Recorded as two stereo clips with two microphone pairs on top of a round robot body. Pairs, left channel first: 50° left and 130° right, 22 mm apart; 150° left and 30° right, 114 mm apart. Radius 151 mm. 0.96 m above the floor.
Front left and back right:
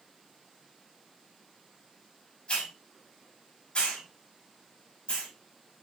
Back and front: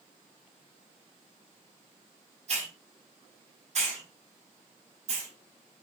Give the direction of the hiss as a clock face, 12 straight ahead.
12 o'clock.